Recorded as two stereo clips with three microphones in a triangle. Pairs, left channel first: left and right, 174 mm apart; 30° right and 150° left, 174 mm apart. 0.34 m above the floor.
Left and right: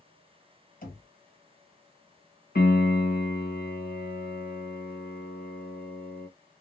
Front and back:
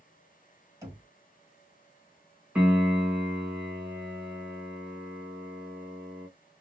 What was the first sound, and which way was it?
Knocking, 80° left.